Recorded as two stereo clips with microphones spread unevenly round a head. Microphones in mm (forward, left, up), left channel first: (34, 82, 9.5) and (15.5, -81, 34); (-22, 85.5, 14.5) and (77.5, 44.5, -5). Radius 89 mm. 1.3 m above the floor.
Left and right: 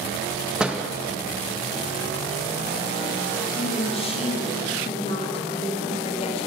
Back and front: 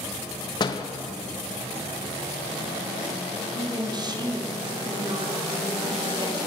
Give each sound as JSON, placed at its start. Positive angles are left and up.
{"t": 0.6, "sound": "a door slam", "azimuth_deg": -175, "distance_m": 0.7}
{"t": 3.5, "sound": "a woman speaking", "azimuth_deg": 25, "distance_m": 2.0}